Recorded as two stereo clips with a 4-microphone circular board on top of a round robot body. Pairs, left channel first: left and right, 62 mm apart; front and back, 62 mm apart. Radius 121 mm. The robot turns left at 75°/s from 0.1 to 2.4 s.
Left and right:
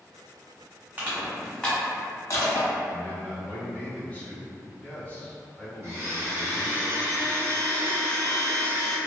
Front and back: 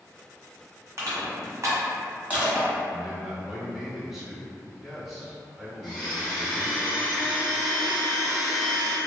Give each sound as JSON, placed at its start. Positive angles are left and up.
{"t": 1.0, "sound": "crushing", "azimuth_deg": -140, "distance_m": 1.3}
{"t": 2.9, "sound": "a man speaking", "azimuth_deg": 95, "distance_m": 1.0}
{"t": 5.8, "sound": "a blender", "azimuth_deg": -95, "distance_m": 1.7}